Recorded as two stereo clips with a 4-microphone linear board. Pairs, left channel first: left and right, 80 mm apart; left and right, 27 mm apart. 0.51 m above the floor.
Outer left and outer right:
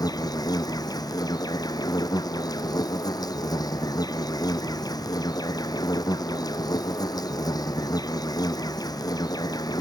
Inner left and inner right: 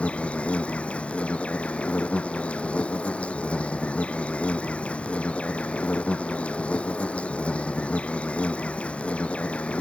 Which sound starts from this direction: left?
An insect, at 0.0 s.